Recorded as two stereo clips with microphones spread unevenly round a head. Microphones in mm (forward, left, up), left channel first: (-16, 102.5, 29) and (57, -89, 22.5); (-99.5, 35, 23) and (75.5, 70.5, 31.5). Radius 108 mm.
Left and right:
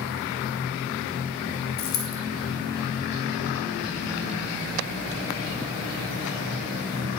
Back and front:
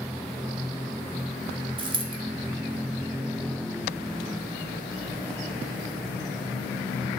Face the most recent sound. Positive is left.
turn(degrees=70)